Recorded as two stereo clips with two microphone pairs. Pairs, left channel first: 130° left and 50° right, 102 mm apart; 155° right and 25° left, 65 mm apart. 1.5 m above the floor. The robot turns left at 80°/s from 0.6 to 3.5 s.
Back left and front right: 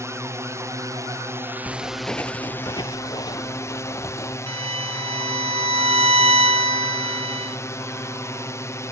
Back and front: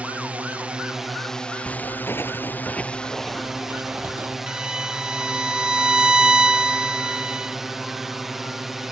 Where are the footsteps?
115° right; by 4.4 s 80° left.